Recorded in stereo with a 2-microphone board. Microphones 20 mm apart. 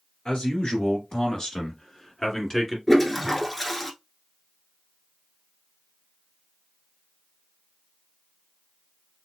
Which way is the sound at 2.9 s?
5° left (ahead or behind).